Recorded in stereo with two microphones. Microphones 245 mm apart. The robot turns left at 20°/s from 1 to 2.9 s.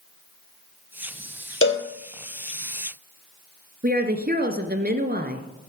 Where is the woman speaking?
40° right (ahead or behind), 1.9 m.